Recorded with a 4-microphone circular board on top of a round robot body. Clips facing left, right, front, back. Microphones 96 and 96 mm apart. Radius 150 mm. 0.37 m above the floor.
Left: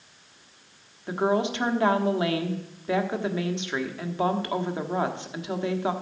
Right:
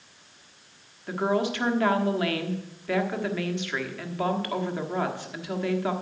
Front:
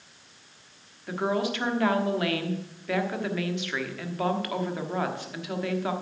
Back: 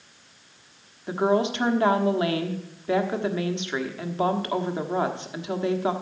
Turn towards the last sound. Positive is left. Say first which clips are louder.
# left 1 dB, back 5 dB
turn(degrees=140)